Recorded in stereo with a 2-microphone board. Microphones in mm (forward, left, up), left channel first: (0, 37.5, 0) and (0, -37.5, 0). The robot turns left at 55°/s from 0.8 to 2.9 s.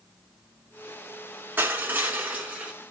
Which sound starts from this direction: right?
Crushing, at 1.6 s.